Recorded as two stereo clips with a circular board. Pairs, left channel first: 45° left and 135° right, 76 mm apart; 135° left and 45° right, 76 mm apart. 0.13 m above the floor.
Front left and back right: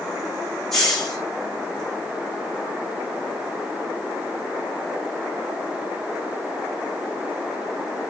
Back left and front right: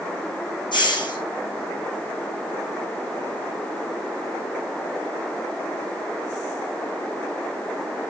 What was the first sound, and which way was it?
A hiss, 130° left.